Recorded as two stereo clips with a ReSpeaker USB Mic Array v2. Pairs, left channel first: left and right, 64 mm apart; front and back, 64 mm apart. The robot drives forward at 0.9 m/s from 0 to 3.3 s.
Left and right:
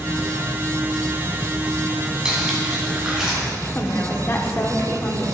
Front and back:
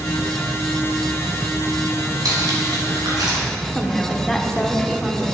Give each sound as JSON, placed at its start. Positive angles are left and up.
{"t": 2.2, "sound": "cutlery clinking", "azimuth_deg": -170, "distance_m": 1.9}
{"t": 3.8, "sound": "a woman speaking", "azimuth_deg": 80, "distance_m": 0.9}